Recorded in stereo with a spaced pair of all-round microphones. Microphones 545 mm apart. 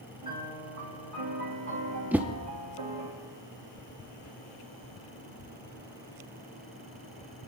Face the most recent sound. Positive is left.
turn(degrees=-5)  # may be behind; listen again after turning